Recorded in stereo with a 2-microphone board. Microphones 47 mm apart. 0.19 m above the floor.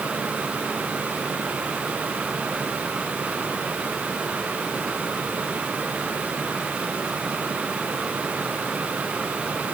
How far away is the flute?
No flute in this recording.